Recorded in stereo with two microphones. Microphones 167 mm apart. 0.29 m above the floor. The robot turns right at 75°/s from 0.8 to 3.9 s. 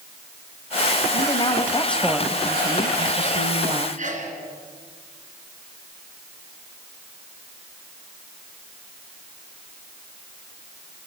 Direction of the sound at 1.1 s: 110° left.